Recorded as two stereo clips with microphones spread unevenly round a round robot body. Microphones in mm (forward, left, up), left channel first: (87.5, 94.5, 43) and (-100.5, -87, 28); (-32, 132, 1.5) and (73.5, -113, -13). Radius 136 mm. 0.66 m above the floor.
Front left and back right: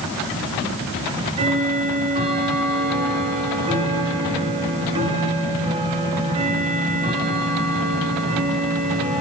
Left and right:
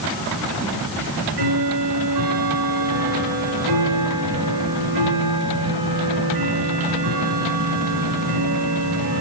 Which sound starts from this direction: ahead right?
Ticking, at 1.0 s.